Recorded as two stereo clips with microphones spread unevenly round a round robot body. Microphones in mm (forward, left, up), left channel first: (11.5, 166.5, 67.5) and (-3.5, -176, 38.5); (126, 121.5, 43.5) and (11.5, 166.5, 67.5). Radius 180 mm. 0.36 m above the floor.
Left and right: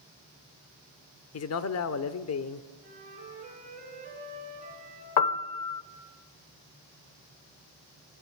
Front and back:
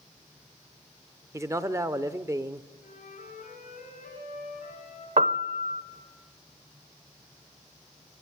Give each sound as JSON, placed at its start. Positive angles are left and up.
{"t": 1.3, "sound": "a man speaking", "azimuth_deg": 90, "distance_m": 1.0}
{"t": 2.8, "sound": "a flute", "azimuth_deg": -25, "distance_m": 5.5}
{"t": 5.2, "sound": "a piano", "azimuth_deg": 115, "distance_m": 0.8}